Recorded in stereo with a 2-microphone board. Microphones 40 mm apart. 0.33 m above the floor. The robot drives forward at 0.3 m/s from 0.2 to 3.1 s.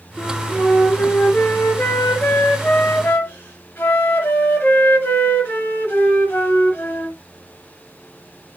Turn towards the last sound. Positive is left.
turn(degrees=75)  # may be behind; listen again after turning